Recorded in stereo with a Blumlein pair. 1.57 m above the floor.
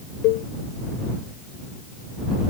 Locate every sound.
0.2 s a cowbell: 40° left